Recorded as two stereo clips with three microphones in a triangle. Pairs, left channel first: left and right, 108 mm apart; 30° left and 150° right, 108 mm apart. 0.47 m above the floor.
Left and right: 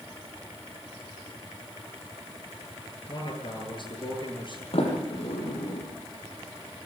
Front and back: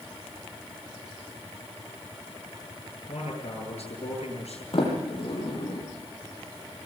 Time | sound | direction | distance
3.1 | a man speaking | 55° left | 9 m
4.7 | a sliding door | 65° left | 7 m